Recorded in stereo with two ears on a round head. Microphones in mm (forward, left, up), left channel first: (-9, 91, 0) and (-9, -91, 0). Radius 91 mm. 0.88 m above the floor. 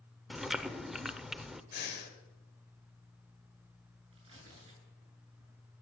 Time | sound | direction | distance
0.3 | chewing | centre (ahead or behind) | 0.7 m
1.7 | breathing | 55° left (ahead or behind) | 3 m
4.1 | tearing paper | 30° right (ahead or behind) | 8 m